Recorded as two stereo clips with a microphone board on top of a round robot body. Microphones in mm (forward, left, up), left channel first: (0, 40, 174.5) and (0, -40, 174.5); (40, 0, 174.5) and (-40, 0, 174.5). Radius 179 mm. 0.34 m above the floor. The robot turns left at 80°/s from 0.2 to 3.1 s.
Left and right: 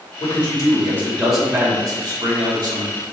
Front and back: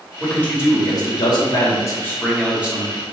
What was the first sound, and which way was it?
A man speaking, 85° left.